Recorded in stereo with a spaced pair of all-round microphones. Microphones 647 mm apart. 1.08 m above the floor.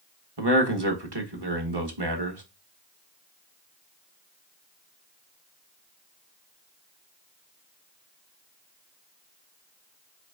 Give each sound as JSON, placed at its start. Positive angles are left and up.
{"t": 0.4, "sound": "a man speaking", "side_deg": -40, "distance_m": 1.3}